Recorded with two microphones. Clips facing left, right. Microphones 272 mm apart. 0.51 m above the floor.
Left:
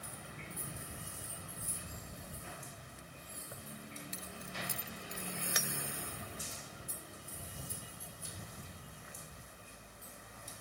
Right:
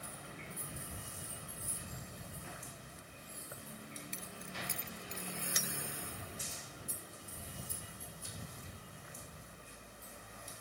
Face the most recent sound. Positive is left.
turn(degrees=70)  # may be behind; listen again after turning